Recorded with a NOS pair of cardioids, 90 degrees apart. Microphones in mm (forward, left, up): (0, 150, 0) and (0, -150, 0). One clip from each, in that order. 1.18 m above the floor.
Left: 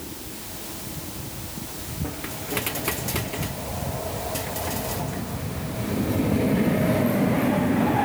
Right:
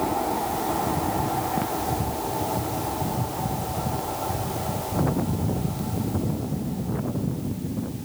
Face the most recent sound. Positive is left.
No sound to turn to.